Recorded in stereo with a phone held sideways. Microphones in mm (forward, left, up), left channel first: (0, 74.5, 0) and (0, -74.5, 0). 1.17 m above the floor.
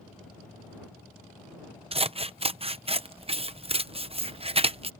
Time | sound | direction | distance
1.9 | scissors | 40° right (ahead or behind) | ?